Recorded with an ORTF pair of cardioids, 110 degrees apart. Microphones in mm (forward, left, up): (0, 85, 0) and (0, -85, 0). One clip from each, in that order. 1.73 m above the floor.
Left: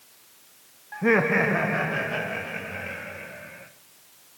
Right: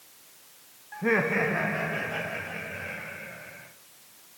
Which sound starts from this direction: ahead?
Laughter, at 0.9 s.